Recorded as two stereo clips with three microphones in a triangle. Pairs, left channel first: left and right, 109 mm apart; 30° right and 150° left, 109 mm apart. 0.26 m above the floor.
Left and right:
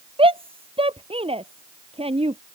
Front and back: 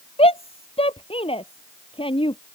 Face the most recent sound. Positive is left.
turn(degrees=-65)